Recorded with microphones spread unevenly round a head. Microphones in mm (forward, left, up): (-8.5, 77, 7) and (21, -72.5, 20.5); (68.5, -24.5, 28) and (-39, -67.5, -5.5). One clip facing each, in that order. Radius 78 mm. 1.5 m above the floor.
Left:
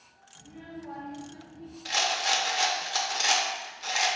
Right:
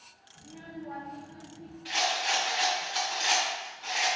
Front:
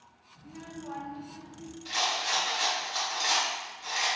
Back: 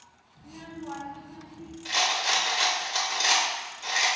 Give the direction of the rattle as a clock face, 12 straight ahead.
7 o'clock.